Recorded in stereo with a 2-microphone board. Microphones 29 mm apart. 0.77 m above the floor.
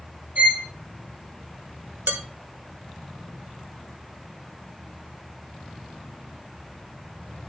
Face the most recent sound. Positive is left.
turn(degrees=-75)  # may be behind; listen again after turning